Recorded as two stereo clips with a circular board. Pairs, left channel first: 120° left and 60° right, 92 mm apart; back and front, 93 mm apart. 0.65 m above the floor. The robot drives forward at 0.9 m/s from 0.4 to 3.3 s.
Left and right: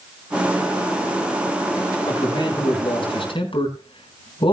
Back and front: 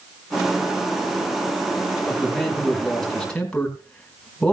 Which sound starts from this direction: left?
A man speaking, at 2.1 s.